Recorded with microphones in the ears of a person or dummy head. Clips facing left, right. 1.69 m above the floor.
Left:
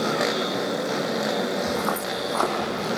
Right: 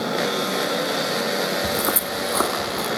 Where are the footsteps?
40° right (ahead or behind), 2.5 m; by 2.9 s 55° right (ahead or behind), 3 m.